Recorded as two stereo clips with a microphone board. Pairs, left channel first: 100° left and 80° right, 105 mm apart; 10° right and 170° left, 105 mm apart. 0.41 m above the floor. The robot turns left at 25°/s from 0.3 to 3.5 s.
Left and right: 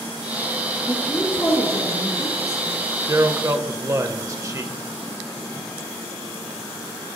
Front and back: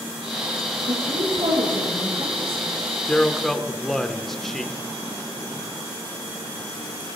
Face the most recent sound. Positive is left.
turn(degrees=-95)